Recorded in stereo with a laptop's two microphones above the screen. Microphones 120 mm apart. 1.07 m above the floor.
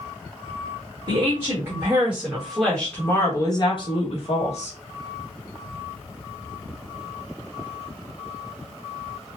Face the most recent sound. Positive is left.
turn(degrees=70)  # may be behind; listen again after turning